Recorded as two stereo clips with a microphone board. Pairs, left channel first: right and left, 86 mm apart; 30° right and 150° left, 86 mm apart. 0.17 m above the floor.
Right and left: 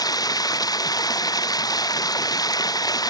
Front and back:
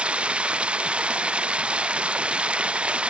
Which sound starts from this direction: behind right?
Running water, at 0.0 s.